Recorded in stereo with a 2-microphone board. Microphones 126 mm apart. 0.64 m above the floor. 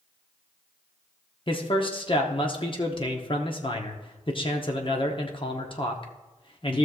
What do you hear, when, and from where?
1.5 s a man speaking: 40° left (ahead or behind), 1.0 m